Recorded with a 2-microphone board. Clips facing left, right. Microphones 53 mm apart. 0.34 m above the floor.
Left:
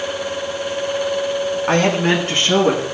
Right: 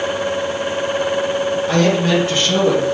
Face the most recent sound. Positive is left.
turn(degrees=40)  # may be behind; listen again after turning